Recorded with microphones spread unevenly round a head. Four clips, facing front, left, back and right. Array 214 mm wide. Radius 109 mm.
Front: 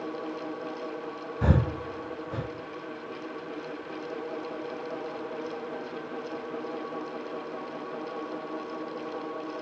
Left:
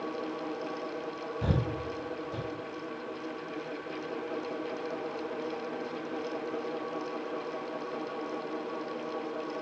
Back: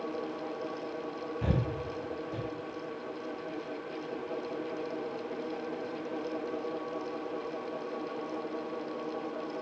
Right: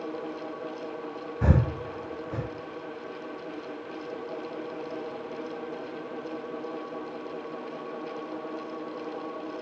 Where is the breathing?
30° right, 0.7 m.